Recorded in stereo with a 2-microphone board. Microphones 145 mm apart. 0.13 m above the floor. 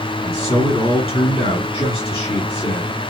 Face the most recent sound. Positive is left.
turn(degrees=35)  # may be behind; listen again after turning